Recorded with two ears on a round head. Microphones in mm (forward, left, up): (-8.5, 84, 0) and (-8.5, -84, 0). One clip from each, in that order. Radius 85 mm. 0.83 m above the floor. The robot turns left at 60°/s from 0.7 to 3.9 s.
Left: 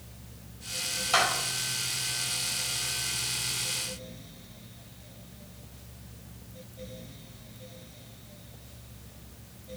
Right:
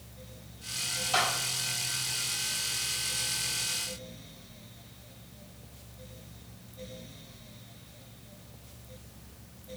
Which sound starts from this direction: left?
A clap, at 1.1 s.